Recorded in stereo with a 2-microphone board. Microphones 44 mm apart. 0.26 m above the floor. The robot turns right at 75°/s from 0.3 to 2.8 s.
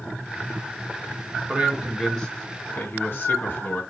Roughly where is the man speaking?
Ahead right.